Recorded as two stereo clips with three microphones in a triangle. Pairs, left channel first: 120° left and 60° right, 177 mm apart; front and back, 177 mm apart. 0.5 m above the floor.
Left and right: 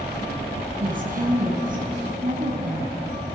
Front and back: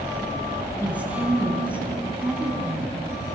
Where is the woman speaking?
100° right, 5 m.